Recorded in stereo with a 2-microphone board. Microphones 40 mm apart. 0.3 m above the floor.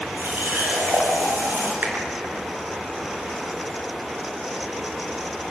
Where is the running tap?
65° right (ahead or behind), 5.5 m.